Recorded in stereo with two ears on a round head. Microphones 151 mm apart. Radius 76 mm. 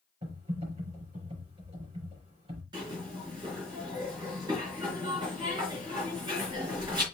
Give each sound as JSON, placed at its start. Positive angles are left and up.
{"t": 0.2, "sound": "typing on a keyboard", "side_deg": -35, "distance_m": 5.5}
{"t": 2.7, "sound": "a zipper", "side_deg": -25, "distance_m": 4.0}